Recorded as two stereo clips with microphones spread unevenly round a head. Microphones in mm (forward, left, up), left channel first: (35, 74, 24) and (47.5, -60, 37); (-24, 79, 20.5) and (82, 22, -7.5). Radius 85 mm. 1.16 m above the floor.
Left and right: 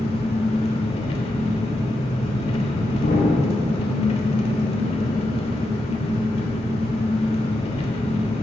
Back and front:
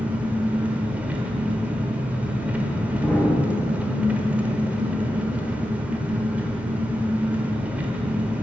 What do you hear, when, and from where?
0.0 s an engine running: 60° left, 1.0 m
3.0 s an explosion: 75° left, 1.3 m